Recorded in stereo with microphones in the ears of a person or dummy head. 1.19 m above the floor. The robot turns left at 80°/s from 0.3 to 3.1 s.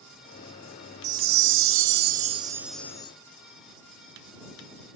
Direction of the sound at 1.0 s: 45° right.